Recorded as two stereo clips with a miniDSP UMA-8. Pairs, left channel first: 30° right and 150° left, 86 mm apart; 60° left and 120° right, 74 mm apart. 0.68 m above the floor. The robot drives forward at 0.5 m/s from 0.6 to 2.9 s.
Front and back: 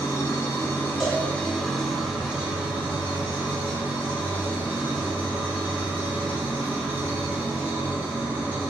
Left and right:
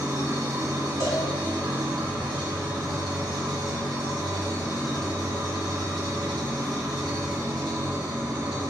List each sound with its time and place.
0.0 s an engine running: 80° right, 0.9 m; by 8.7 s 140° right, 1.4 m
1.0 s a cowbell: 60° left, 1.4 m; by 1.3 s 65° left, 1.3 m